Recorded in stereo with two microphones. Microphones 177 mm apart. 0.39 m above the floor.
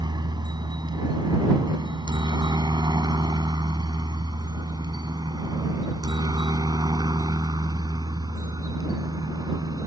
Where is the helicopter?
25° right (ahead or behind); by 9.9 s 20° right (ahead or behind).